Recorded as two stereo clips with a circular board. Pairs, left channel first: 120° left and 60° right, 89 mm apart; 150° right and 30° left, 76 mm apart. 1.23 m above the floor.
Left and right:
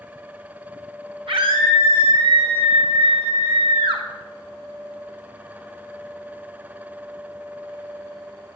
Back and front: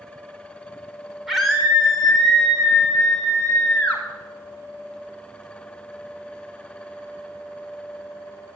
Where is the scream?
55° right, 4.5 m; by 4.0 s 70° right, 3 m.